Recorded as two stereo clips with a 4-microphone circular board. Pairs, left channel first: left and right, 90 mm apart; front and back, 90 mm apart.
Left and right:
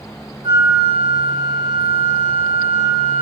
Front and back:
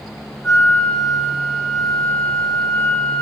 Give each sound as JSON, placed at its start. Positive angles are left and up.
{"t": 0.4, "sound": "a flute", "azimuth_deg": -80, "distance_m": 6.5}